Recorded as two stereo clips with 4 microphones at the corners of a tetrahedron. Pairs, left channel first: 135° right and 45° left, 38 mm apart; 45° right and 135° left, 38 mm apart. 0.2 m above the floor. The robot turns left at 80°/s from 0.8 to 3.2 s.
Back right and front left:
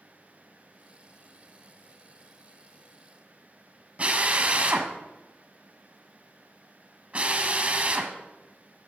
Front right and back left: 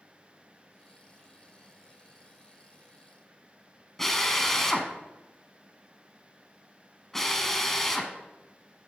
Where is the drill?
30° left, 1.2 m.